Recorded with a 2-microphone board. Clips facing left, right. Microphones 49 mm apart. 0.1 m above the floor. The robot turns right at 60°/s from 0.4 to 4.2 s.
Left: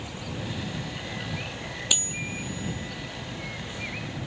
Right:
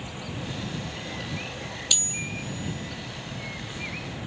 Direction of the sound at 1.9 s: 20° left (ahead or behind).